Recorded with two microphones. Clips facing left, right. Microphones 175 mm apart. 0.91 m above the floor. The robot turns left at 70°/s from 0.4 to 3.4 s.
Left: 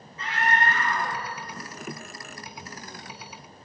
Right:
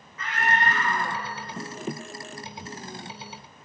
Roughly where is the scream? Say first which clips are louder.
Even; behind left.